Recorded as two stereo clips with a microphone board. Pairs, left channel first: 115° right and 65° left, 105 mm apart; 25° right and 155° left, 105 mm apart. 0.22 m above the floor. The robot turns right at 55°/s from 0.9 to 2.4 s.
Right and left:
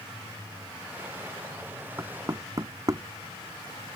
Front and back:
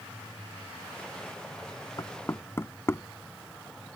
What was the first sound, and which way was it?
Knocking, 10° left.